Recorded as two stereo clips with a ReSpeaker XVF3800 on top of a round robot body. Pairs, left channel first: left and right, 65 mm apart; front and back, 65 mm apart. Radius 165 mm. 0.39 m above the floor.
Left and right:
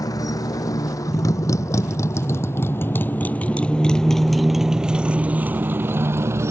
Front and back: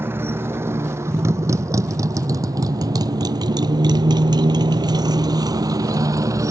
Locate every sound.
0.0 s a motorcycle: 120° left; by 6.5 s 140° right